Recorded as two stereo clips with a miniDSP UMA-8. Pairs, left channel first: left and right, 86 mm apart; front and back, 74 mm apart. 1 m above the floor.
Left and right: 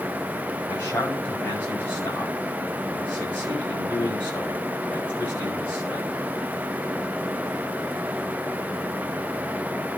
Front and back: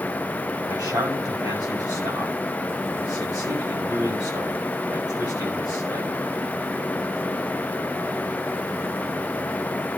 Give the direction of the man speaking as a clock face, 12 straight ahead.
7 o'clock.